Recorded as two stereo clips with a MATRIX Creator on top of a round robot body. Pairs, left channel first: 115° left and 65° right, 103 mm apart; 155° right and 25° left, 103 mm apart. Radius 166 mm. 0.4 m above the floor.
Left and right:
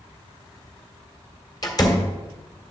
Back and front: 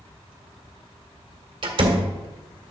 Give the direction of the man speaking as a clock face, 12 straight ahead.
No man speaking in this recording.